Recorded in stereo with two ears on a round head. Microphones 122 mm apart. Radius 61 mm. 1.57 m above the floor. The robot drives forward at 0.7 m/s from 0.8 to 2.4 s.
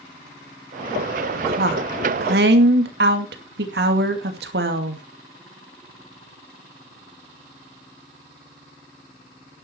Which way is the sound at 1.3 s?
75° right (ahead or behind).